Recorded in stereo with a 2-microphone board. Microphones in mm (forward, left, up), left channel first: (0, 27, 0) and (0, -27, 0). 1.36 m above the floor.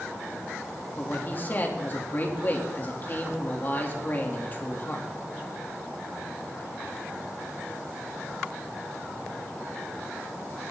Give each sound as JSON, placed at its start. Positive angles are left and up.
{"t": 1.0, "sound": "a man speaking", "side_deg": 35, "distance_m": 3.0}